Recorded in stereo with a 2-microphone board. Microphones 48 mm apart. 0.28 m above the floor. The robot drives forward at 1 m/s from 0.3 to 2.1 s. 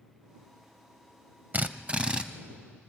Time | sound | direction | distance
1.5 | a drill | 35° right (ahead or behind) | 0.6 m